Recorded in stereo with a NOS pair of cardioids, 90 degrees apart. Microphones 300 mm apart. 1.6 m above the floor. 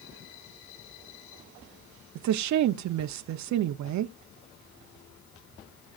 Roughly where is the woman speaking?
Ahead right.